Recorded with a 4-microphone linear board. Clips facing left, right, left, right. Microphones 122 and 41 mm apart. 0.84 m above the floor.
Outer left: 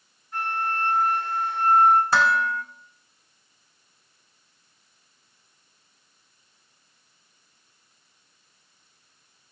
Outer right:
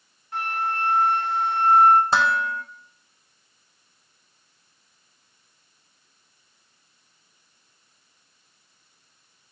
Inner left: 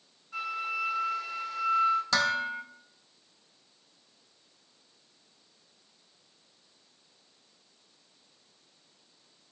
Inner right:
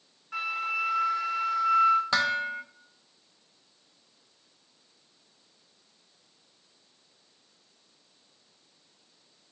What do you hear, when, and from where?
0.3 s a flute: 75° right (ahead or behind), 0.7 m
2.1 s dishes clattering: 25° right (ahead or behind), 0.6 m